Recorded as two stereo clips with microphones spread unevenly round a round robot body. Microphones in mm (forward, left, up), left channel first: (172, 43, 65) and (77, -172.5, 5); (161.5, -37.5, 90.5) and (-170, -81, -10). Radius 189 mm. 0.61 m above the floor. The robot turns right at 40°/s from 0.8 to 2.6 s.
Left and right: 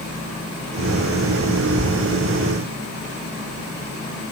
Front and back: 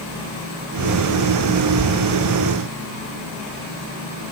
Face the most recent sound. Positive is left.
No sound to turn to.